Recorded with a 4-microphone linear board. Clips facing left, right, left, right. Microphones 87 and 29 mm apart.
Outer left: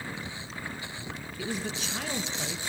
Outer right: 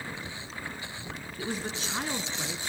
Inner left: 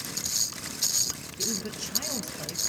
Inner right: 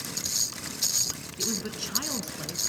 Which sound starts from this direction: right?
A woman speaking, at 1.4 s.